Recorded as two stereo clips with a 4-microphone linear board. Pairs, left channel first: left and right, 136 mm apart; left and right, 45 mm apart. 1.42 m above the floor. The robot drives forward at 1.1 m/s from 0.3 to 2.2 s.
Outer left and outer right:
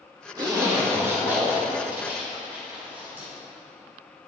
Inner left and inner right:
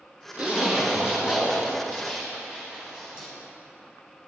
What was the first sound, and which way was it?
A zipper, 30° right (ahead or behind).